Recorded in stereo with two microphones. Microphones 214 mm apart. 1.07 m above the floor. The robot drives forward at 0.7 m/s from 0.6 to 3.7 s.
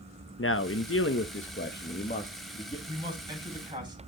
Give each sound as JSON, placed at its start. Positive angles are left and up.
{"t": 0.4, "sound": "a man speaking", "side_deg": 75, "distance_m": 0.9}
{"t": 2.9, "sound": "a man speaking", "side_deg": -20, "distance_m": 8.0}